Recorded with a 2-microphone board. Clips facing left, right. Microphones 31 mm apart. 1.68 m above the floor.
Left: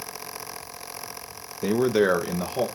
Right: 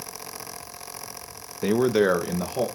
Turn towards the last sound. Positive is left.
turn(degrees=15)  # may be behind; listen again after turning